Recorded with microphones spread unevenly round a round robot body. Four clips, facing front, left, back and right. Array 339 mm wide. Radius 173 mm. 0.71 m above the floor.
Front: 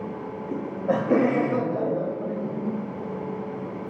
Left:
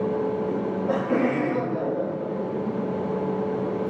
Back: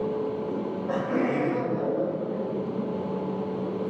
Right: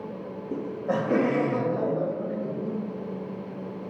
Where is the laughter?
20° left, 0.7 m; by 2.8 s 10° right, 3 m.